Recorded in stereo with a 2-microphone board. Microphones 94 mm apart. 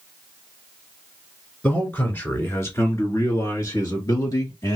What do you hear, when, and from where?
1.6 s a man speaking: 15° left (ahead or behind), 1.7 m; by 4.8 s 40° left (ahead or behind), 2 m